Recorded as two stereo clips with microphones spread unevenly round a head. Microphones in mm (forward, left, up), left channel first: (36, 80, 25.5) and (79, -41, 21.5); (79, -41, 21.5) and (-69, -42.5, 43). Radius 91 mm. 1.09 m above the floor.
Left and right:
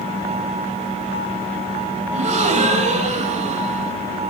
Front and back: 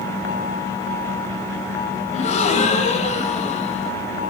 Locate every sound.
2.1 s a gasp: 45° right, 1.7 m